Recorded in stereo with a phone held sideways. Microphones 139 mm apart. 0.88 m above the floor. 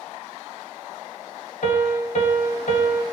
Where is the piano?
65° left (ahead or behind), 1.2 m.